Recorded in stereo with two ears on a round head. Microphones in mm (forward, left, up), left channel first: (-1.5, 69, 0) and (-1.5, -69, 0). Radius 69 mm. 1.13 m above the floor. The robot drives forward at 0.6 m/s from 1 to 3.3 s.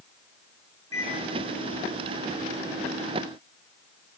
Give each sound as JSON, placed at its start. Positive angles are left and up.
{"t": 0.9, "sound": "a microwave", "side_deg": 20, "distance_m": 4.0}